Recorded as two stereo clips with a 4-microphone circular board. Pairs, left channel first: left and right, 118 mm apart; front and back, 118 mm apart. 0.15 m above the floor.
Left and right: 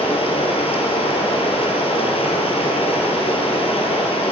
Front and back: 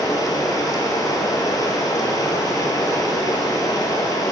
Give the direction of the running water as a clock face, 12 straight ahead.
10 o'clock.